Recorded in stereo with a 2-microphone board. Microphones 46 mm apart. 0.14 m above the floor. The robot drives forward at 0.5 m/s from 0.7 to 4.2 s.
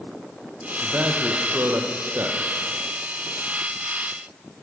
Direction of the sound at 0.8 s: 65° right (ahead or behind).